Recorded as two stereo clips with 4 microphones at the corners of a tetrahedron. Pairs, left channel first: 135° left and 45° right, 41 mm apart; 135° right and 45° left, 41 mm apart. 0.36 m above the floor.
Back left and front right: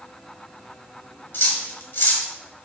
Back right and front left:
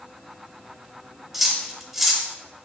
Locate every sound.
1.3 s cutlery clinking: 130° left, 0.8 m